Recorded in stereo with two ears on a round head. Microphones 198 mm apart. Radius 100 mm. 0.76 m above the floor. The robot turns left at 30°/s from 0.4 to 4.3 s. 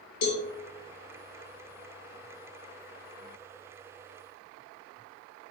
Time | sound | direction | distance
0.2 | a cowbell | 75° left (ahead or behind) | 4.5 m